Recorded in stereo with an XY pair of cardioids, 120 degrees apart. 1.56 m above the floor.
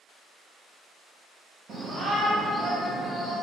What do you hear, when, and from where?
1.7 s a shout: 50° right, 0.6 m; by 3.3 s 5° right, 1.2 m